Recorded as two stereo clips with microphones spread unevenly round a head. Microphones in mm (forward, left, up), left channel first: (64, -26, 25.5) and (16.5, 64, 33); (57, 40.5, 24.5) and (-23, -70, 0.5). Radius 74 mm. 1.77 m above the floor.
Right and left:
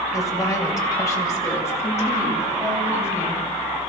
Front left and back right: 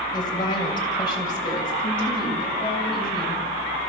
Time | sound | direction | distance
0.1 | a woman speaking | straight ahead | 7 m